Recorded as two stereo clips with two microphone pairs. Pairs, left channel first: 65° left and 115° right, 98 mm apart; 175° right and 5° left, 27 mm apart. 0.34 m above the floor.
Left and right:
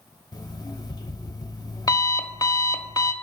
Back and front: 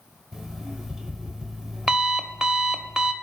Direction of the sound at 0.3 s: 70° left.